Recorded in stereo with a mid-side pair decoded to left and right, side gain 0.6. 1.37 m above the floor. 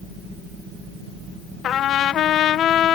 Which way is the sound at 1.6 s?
55° left.